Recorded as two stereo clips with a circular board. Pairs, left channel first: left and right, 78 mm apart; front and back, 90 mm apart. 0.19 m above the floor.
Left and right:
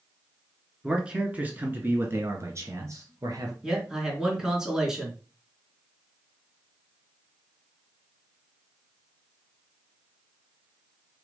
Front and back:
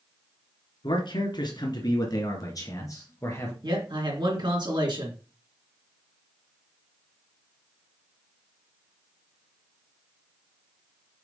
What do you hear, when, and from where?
0.8 s a man speaking: 10° right, 2 m; by 3.5 s 55° right, 2.5 m
3.6 s a man speaking: 170° right, 2.5 m